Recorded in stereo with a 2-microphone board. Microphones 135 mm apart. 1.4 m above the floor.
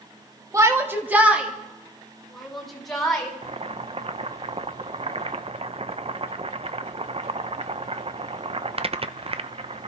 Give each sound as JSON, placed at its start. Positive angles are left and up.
{"t": 0.5, "sound": "a shout", "side_deg": -25, "distance_m": 1.9}
{"t": 3.4, "sound": "boiling", "side_deg": -45, "distance_m": 0.6}